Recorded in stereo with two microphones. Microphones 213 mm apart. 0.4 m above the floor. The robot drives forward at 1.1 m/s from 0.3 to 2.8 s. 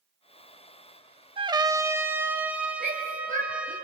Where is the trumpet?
25° right (ahead or behind), 0.5 m; by 3.8 s 5° right (ahead or behind), 2 m.